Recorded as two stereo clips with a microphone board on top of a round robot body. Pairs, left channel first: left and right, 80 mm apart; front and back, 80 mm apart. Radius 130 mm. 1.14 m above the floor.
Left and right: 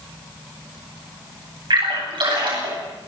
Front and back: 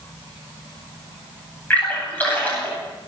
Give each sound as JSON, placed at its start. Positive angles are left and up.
{"t": 1.7, "sound": "a splash", "azimuth_deg": -75, "distance_m": 9.5}